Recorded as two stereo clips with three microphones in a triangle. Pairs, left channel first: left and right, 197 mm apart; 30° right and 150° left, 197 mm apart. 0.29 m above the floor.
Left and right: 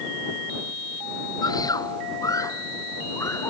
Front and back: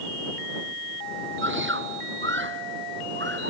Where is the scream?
160° left; by 3.5 s 165° left.